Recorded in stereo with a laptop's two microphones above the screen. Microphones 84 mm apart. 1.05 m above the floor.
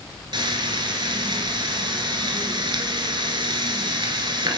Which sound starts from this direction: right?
Frying, at 0.3 s.